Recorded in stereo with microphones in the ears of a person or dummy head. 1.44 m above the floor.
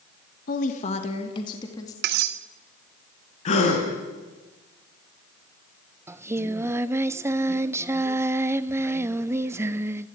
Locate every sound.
0.5 s a woman speaking: 55° left (ahead or behind), 1.8 m; by 1.9 s 20° left (ahead or behind), 3 m
2.0 s cutlery clinking: 60° right (ahead or behind), 1.0 m
3.5 s a gasp: 50° left (ahead or behind), 4.5 m
6.1 s singing: 20° right (ahead or behind), 0.7 m